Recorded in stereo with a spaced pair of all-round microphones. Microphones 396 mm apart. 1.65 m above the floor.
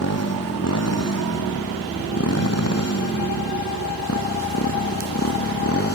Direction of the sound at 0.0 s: 40° left (ahead or behind).